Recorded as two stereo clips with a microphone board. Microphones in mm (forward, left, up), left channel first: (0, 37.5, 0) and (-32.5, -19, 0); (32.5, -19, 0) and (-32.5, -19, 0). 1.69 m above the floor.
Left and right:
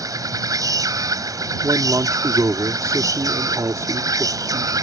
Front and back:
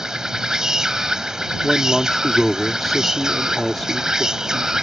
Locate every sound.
0.0 s an insect: 100° right
1.6 s a man speaking: 85° right